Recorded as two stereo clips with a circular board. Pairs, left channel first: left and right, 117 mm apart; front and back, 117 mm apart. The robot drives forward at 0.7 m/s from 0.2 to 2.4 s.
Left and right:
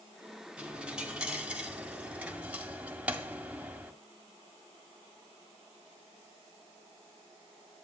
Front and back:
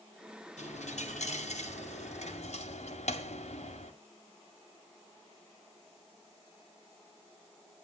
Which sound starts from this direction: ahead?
A dropped coin, at 0.6 s.